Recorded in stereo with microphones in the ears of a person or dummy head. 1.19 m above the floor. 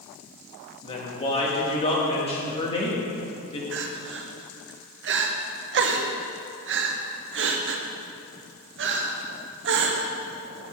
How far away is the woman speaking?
About 1.6 m.